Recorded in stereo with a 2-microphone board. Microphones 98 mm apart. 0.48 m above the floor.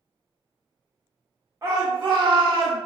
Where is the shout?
30° right (ahead or behind), 0.8 m; by 2.8 s 60° right (ahead or behind), 1.3 m.